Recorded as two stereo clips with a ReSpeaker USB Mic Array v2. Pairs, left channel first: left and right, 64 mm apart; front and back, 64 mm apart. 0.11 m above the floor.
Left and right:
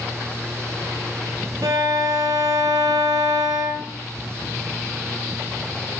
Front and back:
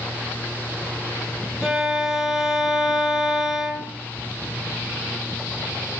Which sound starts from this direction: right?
A violin, at 1.6 s.